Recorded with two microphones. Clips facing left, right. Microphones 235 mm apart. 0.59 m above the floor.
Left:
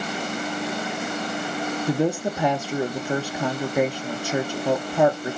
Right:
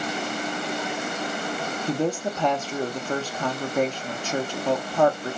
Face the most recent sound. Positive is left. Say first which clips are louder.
# left 2 dB
turn(degrees=10)  # may be behind; listen again after turning